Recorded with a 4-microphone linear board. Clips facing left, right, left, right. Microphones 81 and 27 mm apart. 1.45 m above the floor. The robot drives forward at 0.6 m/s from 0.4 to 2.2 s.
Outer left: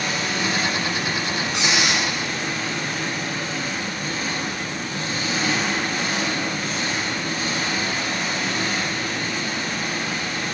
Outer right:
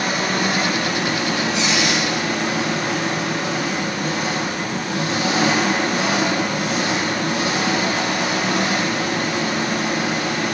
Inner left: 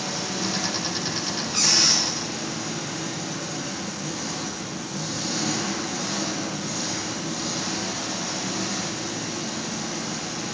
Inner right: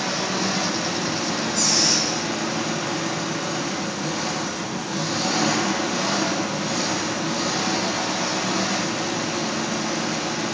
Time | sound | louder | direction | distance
0.0 | an engine running | outer right 4 dB, inner right 4 dB | 55° right (ahead or behind) | 1.3 m
1.5 | a squeak | outer right 3 dB, inner left 2 dB | 70° left (ahead or behind) | 4.5 m